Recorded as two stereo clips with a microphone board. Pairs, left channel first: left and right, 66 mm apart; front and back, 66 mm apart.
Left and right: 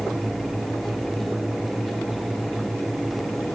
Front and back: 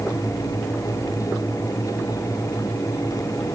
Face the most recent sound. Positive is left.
No sound to turn to.